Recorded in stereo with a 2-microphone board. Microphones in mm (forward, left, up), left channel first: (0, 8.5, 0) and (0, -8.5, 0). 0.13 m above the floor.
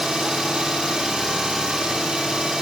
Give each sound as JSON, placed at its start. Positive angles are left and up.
{"t": 0.0, "sound": "an engine running", "side_deg": -65, "distance_m": 2.0}